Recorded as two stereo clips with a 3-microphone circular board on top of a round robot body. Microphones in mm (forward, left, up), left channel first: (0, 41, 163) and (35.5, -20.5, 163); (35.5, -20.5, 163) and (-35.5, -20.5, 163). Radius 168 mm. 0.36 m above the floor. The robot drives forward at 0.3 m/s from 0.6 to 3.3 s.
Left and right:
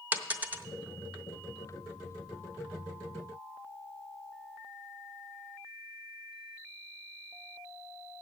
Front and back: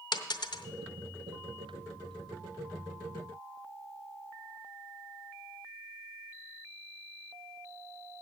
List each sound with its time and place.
0.1 s a dropped coin: 10° left, 1.0 m